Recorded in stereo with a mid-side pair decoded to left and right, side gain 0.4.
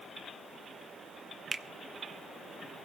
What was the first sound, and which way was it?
A finger snap, 40° right.